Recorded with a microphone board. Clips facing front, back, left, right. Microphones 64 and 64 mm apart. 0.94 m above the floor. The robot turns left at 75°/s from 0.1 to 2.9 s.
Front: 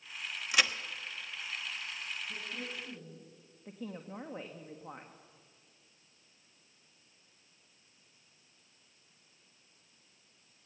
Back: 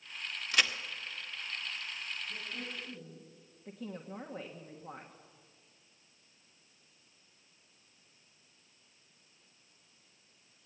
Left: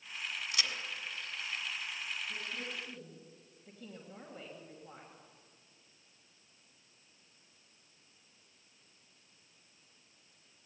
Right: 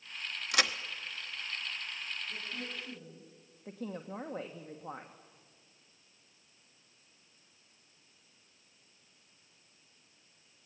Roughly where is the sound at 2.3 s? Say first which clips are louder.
Front 1 dB, even; ahead.